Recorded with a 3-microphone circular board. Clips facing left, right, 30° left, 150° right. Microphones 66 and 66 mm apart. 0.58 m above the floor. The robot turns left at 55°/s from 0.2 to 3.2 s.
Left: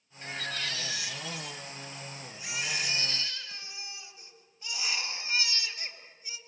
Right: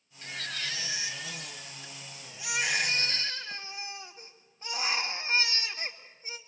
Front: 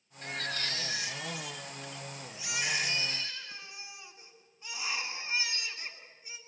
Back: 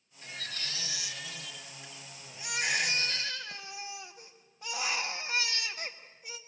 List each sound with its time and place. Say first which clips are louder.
0.2 s a baby crying: left 2 dB, front 6 dB; 20° left, 1.6 m; by 6.4 s 145° right, 1.6 m